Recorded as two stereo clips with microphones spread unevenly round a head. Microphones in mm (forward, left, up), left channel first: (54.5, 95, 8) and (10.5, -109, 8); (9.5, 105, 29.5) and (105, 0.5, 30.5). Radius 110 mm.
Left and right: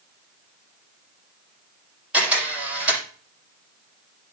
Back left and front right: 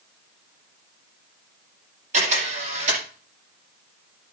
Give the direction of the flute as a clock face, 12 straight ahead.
I don't hear a flute.